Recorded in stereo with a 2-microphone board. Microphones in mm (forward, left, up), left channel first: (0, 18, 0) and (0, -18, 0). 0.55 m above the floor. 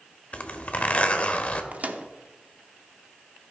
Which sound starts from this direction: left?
A zipper, at 0.3 s.